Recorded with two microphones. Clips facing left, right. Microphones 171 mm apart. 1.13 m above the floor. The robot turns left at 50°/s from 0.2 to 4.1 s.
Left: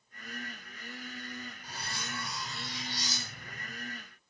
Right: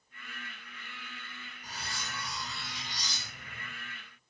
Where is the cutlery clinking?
75° right, 1.2 m; by 3.7 s straight behind, 1.2 m.